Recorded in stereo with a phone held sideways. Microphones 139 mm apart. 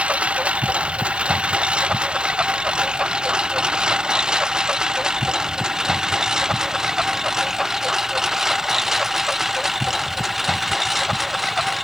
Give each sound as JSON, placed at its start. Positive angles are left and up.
{"t": 0.0, "sound": "a lawn mower", "side_deg": -10}